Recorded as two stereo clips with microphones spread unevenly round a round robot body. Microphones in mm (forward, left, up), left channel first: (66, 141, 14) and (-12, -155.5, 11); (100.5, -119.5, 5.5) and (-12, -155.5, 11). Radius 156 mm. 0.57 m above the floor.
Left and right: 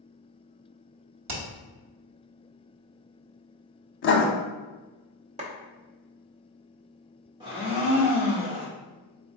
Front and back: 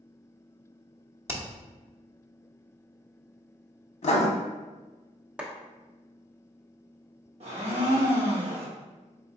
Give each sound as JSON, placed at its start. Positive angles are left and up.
{"t": 1.3, "sound": "hammering", "azimuth_deg": -100, "distance_m": 1.2}
{"t": 4.0, "sound": "writing", "azimuth_deg": 25, "distance_m": 0.8}
{"t": 5.4, "sound": "a clap", "azimuth_deg": -95, "distance_m": 0.8}
{"t": 7.4, "sound": "a blender", "azimuth_deg": -175, "distance_m": 1.5}